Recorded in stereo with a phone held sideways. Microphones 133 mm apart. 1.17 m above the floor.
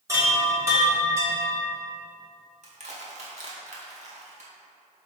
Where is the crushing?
55° right (ahead or behind), 1.2 m.